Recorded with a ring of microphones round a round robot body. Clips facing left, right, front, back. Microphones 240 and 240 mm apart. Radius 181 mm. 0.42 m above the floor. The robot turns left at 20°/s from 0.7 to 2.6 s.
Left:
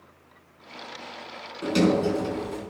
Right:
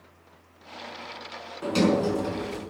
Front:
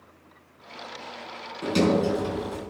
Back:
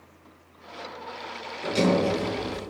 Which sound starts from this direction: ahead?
A sliding door, at 1.6 s.